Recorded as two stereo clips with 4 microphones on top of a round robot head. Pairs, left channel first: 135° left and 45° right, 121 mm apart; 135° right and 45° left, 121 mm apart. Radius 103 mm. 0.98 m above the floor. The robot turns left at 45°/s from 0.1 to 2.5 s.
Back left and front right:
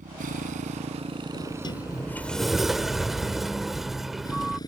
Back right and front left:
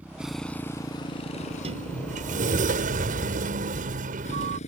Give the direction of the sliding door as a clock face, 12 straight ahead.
9 o'clock.